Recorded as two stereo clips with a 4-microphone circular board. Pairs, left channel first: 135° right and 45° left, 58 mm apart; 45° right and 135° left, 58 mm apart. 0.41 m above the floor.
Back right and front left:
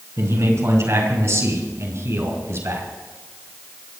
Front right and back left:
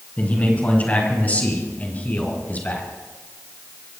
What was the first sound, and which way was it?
A man speaking, 15° left.